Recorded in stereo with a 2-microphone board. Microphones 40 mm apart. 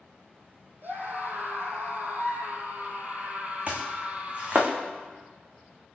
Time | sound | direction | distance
0.8 | a scream | 55° right (ahead or behind) | 4.5 m
3.7 | chopping | 35° right (ahead or behind) | 3 m